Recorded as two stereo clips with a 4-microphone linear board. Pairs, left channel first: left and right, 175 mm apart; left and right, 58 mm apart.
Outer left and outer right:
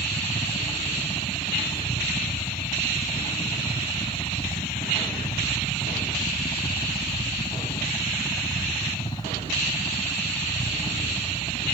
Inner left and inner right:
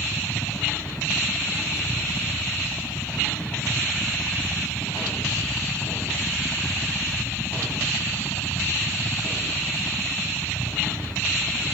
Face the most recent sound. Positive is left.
turn(degrees=25)  # may be behind; listen again after turning